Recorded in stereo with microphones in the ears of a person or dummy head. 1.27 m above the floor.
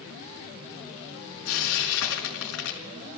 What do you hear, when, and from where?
1.4 s frying: 70° left (ahead or behind), 5 m